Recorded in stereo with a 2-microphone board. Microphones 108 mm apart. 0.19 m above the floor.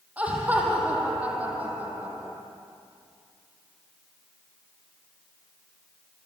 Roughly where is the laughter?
Centre.